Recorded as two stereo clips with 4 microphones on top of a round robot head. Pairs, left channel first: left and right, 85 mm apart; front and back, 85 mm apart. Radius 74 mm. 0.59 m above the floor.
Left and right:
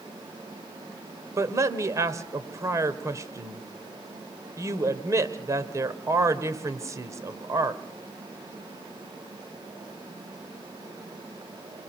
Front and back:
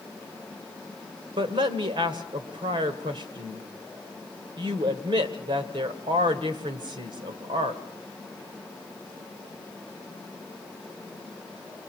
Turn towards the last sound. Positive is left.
turn(degrees=-140)